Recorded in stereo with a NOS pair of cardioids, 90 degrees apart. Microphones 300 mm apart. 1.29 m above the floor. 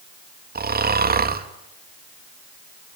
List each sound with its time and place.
0.6 s snoring: 30° right, 2.5 m